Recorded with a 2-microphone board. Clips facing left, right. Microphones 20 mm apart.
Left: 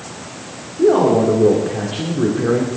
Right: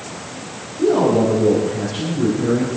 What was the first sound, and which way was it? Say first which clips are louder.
A man speaking: left 2 dB; 70° left (ahead or behind).